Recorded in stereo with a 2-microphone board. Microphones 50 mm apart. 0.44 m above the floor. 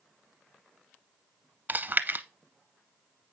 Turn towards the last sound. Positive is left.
turn(degrees=-40)  # may be behind; listen again after turning